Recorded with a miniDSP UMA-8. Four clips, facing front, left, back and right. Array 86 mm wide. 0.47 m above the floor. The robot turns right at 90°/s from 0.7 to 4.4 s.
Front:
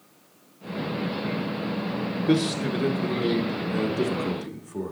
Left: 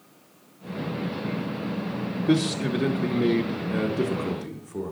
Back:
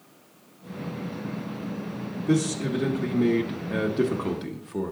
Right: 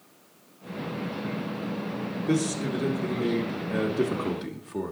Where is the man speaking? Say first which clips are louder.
Left 3 dB, front 1 dB; 25° left, 0.9 m; by 4.9 s 145° right, 0.9 m.